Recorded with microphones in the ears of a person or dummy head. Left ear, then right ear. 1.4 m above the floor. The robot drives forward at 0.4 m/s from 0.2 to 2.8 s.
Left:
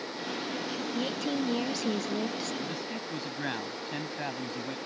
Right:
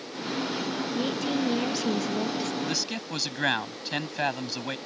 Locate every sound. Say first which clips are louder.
0.9 s a woman speaking: right 3 dB; 5° left (ahead or behind)
2.6 s a man speaking: right 6 dB; 50° right (ahead or behind)